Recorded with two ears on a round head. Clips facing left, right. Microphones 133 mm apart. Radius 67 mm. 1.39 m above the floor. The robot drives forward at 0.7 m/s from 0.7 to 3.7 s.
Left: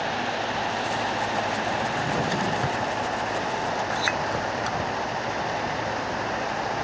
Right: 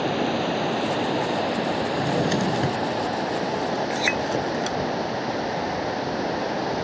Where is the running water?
55° right (ahead or behind); by 6.8 s 40° right (ahead or behind).